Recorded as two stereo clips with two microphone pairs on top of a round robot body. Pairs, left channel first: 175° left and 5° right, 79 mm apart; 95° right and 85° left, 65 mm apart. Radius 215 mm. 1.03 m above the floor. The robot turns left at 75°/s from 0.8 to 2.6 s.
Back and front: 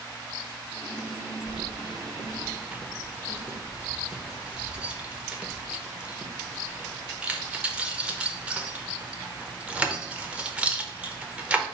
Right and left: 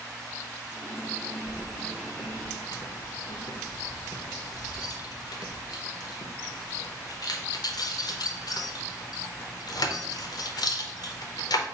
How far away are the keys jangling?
About 0.8 m.